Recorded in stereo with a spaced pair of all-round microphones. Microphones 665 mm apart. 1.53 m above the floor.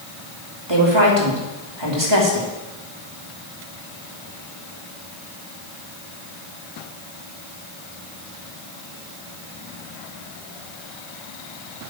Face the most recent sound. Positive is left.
turn(degrees=-40)  # may be behind; listen again after turning